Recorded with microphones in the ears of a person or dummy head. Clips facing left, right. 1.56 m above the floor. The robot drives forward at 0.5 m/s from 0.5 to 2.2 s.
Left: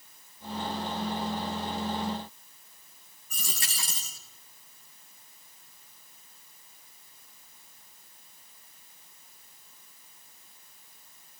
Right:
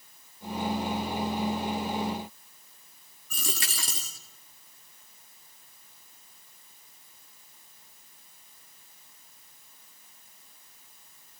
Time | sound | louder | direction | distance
3.3 | a dropped coin | right 5 dB | 60° right (ahead or behind) | 1.9 m